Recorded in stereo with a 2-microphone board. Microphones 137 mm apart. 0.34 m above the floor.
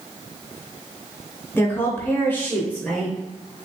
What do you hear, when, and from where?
1.6 s a woman speaking: 15° left (ahead or behind), 1.1 m; by 3.7 s 5° left (ahead or behind), 1.3 m